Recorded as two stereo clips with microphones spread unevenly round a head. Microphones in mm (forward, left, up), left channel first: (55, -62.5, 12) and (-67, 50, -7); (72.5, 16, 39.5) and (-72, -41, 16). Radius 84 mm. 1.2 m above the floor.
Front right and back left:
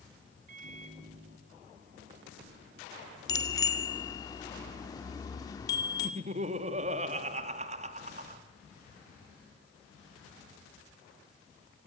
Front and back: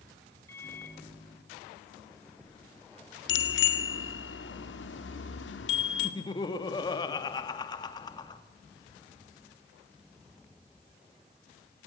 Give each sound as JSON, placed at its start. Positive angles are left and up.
{"t": 0.5, "sound": "a microwave", "azimuth_deg": 95, "distance_m": 3.0}
{"t": 3.3, "sound": "a bicycle bell", "azimuth_deg": 25, "distance_m": 2.0}
{"t": 6.0, "sound": "laughter", "azimuth_deg": 85, "distance_m": 1.8}